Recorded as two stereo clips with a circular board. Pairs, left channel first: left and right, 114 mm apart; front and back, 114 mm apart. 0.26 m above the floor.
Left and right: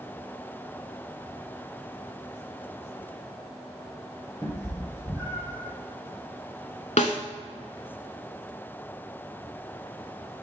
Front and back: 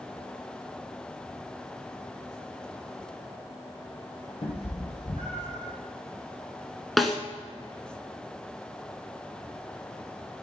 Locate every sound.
4.4 s a cat meowing: 25° left, 1.6 m
7.0 s a snare drum: 90° left, 0.8 m